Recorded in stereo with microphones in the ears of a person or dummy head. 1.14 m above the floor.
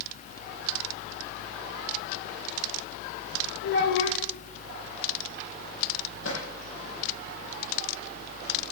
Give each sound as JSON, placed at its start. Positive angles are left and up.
{"t": 3.6, "sound": "a child speaking", "side_deg": 65, "distance_m": 2.5}
{"t": 6.2, "sound": "a drawer", "side_deg": 80, "distance_m": 9.5}